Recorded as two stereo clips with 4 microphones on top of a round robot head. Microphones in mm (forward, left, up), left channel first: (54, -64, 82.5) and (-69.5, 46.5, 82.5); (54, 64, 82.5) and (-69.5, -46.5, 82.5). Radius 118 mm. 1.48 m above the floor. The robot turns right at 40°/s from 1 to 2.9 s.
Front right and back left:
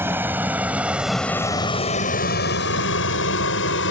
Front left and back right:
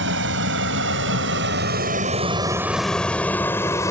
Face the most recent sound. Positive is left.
turn(degrees=-30)